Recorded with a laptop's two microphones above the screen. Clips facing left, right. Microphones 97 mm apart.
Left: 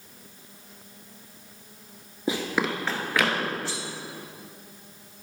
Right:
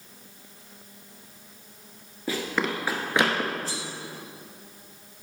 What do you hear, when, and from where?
2.3 s running footsteps: 25° left (ahead or behind), 0.9 m; by 3.5 s 35° right (ahead or behind), 1.4 m
3.6 s cutlery clinking: 40° right (ahead or behind), 1.1 m